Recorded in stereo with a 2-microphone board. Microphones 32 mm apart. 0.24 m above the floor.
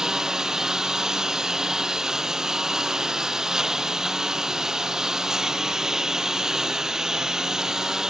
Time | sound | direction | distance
0.0 | a lawn mower | 15° right (ahead or behind) | ?